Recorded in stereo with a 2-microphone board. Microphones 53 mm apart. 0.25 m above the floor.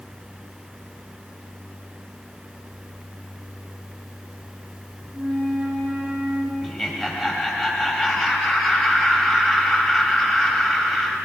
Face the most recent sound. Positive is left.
turn(degrees=0)  # may be behind; listen again after turning